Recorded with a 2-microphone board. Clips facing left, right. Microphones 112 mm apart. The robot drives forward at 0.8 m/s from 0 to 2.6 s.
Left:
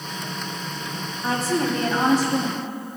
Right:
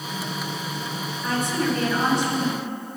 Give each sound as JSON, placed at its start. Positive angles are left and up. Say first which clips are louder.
{"t": 1.2, "sound": "a woman speaking", "louder": "left 2 dB", "side_deg": 35, "distance_m": 1.5}